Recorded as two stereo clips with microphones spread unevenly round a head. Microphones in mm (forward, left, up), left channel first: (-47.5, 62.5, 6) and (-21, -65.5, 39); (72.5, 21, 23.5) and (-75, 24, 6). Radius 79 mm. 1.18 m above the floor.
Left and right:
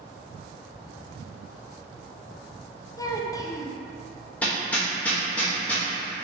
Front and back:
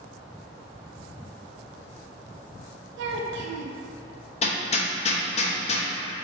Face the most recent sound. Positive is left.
turn(degrees=5)